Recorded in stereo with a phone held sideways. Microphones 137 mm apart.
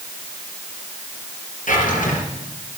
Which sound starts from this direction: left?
A drawer, at 1.7 s.